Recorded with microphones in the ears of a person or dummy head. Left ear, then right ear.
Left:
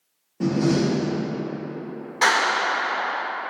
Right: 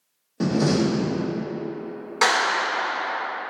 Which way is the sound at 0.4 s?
50° right (ahead or behind).